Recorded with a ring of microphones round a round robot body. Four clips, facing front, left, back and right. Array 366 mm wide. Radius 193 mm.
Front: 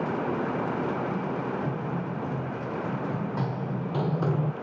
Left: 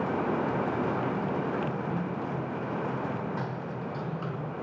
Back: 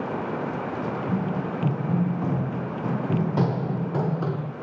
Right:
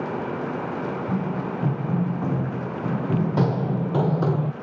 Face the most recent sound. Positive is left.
turn(degrees=-65)